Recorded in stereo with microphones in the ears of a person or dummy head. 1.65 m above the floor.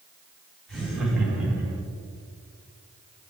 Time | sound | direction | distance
0.7 | laughter | 5° left (ahead or behind) | 3 m